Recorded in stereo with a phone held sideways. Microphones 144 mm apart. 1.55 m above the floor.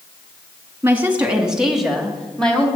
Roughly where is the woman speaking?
Centre.